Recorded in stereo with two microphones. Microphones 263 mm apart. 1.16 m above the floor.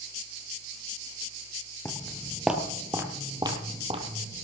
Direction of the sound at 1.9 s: 10° left (ahead or behind).